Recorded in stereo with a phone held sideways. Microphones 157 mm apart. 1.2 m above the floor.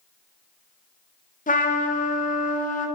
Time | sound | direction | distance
1.5 | a trumpet | 60° left (ahead or behind) | 0.6 m